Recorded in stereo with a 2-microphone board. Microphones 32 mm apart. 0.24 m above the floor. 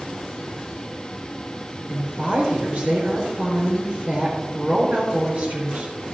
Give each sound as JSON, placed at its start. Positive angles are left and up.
{"t": 1.9, "sound": "a woman speaking", "side_deg": -40, "distance_m": 4.5}